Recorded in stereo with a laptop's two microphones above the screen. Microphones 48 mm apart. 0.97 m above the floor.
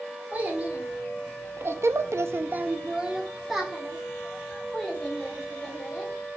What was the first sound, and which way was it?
A child speaking, 30° right (ahead or behind).